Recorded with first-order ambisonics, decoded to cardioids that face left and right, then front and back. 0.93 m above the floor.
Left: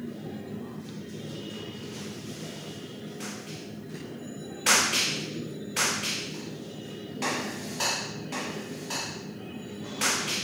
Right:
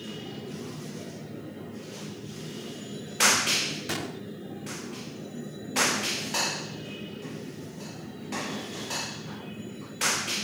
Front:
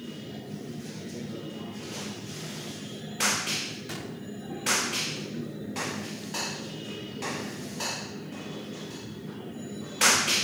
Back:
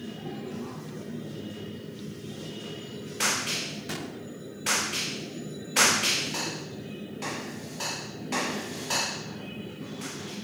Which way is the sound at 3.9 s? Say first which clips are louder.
Right 8 dB, back 2 dB; 100° right.